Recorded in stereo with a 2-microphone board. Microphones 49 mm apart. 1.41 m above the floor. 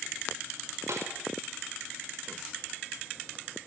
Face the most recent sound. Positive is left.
turn(degrees=-75)  # may be behind; listen again after turning